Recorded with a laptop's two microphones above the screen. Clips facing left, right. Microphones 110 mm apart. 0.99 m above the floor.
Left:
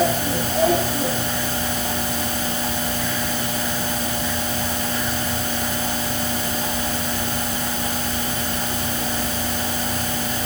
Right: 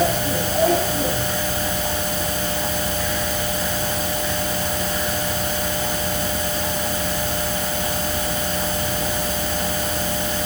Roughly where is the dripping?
I don't hear dripping.